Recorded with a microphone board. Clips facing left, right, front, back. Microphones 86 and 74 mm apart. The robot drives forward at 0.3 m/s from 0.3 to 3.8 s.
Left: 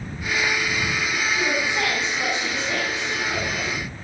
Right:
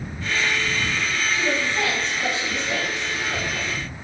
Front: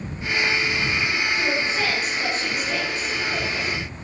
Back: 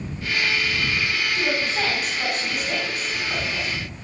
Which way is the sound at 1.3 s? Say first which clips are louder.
Right 1 dB, front 1 dB; 165° left.